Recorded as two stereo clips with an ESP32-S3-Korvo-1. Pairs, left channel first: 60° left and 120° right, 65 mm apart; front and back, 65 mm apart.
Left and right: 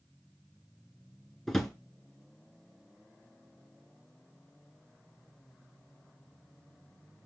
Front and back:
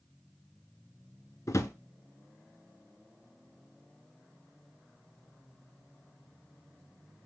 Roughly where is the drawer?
Ahead right.